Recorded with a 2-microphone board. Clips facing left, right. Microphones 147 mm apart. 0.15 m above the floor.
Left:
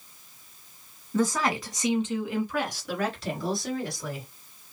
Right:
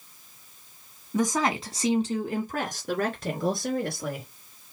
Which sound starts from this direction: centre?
A woman speaking, at 1.1 s.